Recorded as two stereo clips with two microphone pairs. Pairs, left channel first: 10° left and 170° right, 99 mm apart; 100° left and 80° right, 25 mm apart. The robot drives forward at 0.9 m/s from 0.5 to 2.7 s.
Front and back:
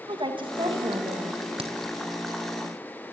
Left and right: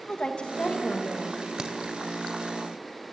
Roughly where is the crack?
Behind right.